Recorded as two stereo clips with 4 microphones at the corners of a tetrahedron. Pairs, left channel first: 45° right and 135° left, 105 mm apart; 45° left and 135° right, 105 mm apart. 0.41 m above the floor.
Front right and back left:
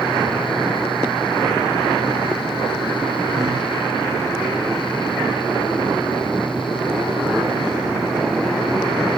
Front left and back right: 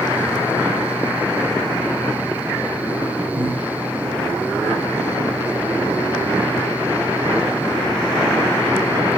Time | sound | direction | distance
3.4 | breathing | 170° right | 2.5 m